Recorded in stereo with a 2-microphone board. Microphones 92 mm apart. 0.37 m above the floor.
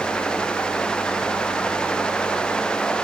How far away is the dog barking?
No dog barking in this recording.